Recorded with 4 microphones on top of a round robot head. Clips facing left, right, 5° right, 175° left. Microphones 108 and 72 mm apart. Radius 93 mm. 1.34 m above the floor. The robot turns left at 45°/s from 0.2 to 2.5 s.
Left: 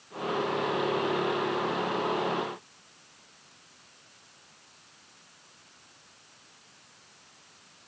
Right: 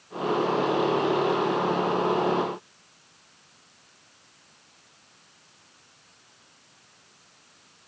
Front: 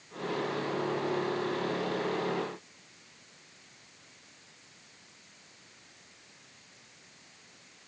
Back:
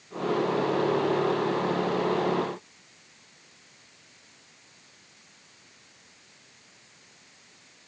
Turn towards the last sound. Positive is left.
No sound to turn to.